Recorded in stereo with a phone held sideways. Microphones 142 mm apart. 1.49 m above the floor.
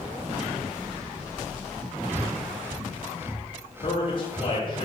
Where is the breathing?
15° right (ahead or behind), 0.5 m.